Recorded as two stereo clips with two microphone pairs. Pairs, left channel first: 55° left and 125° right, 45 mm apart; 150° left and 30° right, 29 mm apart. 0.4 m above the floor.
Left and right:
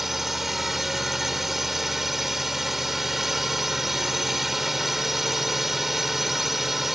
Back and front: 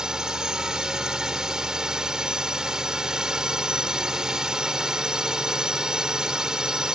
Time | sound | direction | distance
0.0 | a drone | 45° right | ?